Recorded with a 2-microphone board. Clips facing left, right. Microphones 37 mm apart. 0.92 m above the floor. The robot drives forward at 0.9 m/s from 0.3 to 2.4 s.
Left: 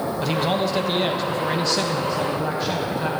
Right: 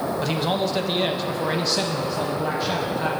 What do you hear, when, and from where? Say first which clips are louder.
0.2 s a man speaking: left 3 dB; centre (ahead or behind), 1.2 m